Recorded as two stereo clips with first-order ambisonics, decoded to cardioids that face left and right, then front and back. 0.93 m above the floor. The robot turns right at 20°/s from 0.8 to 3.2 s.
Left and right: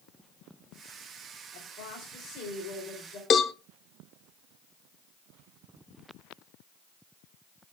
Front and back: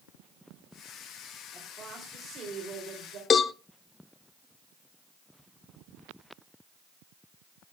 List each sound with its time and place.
1.5 s a woman speaking: 105° left, 3 m; by 3.2 s 140° left, 3 m
3.3 s a cowbell: 50° left, 0.6 m